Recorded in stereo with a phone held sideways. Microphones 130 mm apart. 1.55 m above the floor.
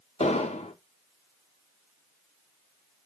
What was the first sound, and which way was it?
An explosion, 55° left (ahead or behind).